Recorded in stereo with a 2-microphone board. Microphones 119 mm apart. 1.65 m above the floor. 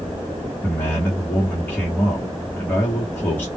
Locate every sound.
0.6 s a man speaking: 15° left (ahead or behind), 1.0 m